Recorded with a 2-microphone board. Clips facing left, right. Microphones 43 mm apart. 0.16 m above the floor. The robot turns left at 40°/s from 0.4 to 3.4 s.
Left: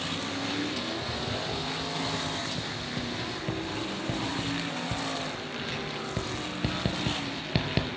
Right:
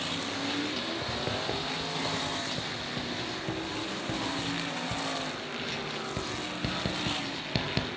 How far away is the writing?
About 1.3 m.